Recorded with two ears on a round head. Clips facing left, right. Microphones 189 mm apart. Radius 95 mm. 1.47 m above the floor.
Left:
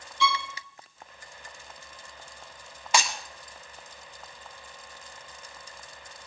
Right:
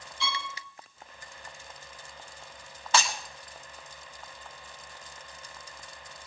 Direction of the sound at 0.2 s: 60° left (ahead or behind).